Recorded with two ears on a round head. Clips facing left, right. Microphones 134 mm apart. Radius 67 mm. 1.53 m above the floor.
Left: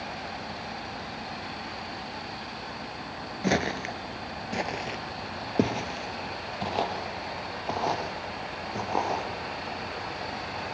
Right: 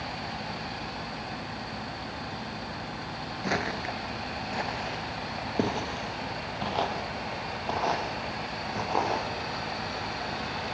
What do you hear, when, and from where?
3.4 s footsteps: 30° left (ahead or behind), 1.7 m; by 9.3 s 5° left (ahead or behind), 5.5 m